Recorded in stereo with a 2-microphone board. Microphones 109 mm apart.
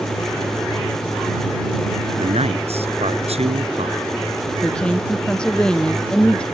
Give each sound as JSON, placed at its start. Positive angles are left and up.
{"t": 2.2, "sound": "a man speaking", "side_deg": -70}
{"t": 4.6, "sound": "a woman speaking", "side_deg": 10}